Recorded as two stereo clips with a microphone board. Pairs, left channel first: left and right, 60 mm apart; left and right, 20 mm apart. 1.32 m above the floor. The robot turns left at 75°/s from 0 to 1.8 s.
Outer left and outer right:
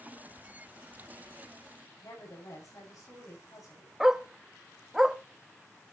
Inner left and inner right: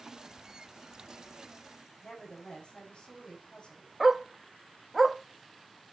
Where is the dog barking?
10° right (ahead or behind), 0.7 m.